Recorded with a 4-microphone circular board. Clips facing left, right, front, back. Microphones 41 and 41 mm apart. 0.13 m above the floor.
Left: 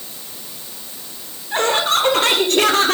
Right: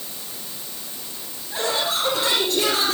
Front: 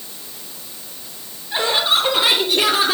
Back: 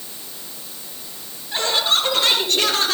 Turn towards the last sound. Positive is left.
turn(degrees=75)